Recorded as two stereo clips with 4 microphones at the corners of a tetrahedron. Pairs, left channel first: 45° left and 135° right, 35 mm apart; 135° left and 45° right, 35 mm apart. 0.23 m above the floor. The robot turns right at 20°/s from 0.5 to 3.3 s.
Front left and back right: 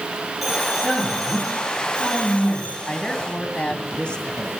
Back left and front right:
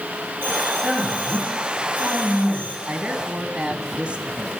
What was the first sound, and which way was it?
A man speaking, 45° right.